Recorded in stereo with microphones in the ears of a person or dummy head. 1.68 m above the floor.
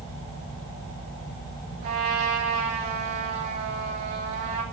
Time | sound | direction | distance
1.8 | a trumpet | 50° right (ahead or behind) | 3 m